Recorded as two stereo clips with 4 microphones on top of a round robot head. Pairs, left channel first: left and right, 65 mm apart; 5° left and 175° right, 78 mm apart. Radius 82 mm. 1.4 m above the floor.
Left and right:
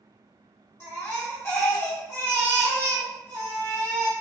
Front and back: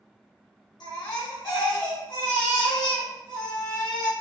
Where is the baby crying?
35° left, 1.2 m.